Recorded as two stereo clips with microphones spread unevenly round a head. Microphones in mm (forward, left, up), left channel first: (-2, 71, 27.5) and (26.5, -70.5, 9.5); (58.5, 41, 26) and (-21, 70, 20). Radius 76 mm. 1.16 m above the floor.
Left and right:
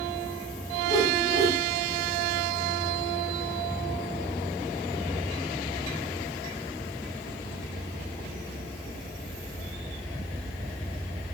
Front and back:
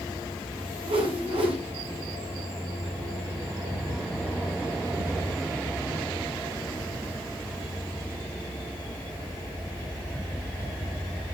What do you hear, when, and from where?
0.8 s a whoosh: 150° left, 4 m